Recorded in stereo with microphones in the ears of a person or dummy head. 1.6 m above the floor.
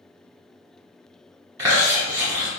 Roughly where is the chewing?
Centre.